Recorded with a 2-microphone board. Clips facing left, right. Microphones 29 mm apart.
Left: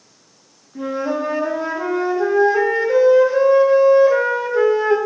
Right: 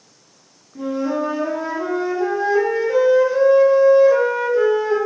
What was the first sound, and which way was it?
A flute, 25° left (ahead or behind).